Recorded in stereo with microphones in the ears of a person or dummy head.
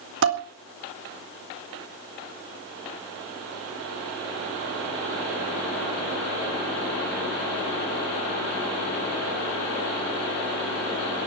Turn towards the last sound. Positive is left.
turn(degrees=-55)  # may be behind; listen again after turning